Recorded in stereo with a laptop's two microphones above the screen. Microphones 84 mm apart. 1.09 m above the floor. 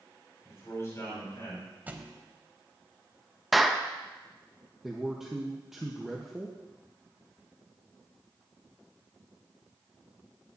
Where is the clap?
Centre (ahead or behind), 0.7 m.